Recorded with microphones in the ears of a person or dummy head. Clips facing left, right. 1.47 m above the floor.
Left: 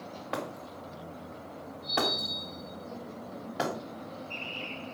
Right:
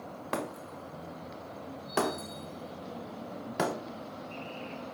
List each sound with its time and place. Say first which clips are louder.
0.3 s breaking glass: right 1 dB; 40° right (ahead or behind), 1.0 m